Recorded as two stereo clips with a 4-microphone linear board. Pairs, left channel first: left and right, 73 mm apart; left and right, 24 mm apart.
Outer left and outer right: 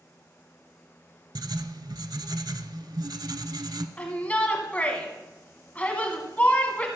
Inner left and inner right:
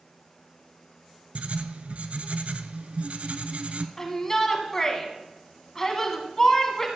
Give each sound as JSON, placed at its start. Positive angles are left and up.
{"t": 1.4, "sound": "writing", "side_deg": -65, "distance_m": 0.6}
{"t": 4.0, "sound": "a shout", "side_deg": 20, "distance_m": 1.5}